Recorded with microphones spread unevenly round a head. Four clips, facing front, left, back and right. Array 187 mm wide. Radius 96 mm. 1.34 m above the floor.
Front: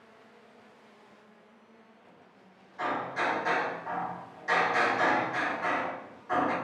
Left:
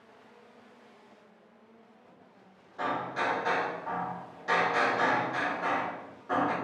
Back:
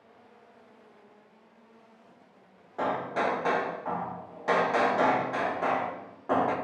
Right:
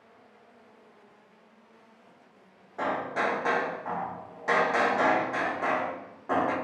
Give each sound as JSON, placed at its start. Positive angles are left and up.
{"t": 2.8, "sound": "hammering", "azimuth_deg": -160, "distance_m": 0.6}